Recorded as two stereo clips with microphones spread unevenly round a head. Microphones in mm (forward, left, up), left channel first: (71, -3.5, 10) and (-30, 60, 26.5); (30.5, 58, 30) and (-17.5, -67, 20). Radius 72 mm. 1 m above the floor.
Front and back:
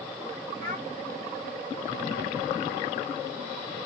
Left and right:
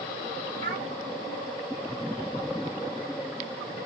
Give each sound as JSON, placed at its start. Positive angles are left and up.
{"t": 0.6, "sound": "a child speaking", "azimuth_deg": 135, "distance_m": 1.4}